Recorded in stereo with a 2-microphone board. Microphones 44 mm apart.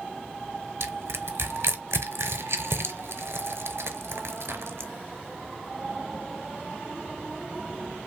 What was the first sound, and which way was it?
Crushing, 80° right.